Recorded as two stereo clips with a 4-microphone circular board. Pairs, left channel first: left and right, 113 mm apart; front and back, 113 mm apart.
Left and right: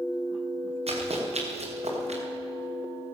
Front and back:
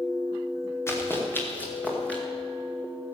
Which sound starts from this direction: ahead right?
Running footsteps, at 0.9 s.